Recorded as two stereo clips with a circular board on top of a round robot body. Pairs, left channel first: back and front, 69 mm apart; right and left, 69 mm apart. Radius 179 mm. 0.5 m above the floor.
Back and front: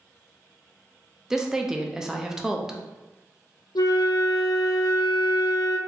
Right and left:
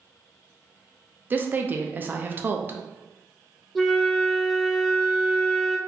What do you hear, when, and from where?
1.3 s a woman speaking: 70° left, 0.7 m
3.8 s a flute: straight behind, 0.6 m